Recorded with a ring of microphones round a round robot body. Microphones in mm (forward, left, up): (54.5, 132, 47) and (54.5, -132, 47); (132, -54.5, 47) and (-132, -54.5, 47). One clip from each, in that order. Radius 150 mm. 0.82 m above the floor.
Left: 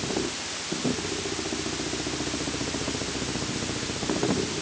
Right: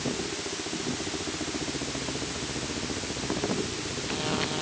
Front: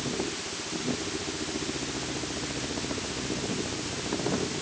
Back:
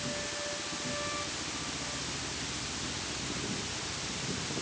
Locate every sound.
Only background noise.